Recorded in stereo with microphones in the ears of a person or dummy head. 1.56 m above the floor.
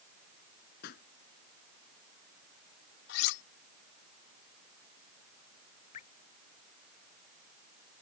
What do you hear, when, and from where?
0.8 s a pop: 55° left (ahead or behind)
3.1 s cutlery clinking: 65° left (ahead or behind)
5.9 s dripping: 40° left (ahead or behind)